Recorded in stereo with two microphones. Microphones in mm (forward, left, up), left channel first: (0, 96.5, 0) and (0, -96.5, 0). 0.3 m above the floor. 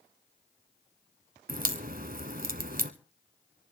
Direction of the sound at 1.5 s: 50° right (ahead or behind).